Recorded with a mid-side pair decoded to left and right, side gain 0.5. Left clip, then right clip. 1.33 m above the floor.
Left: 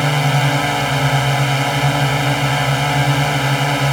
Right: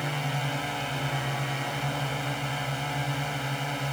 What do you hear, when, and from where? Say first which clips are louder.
0.0 s a drone: left 14 dB; 70° left